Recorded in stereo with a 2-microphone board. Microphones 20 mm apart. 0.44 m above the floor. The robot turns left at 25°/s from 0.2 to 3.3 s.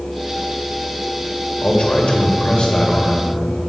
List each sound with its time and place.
1.6 s a man speaking: 90° left, 1.6 m; by 3.2 s 50° left, 1.6 m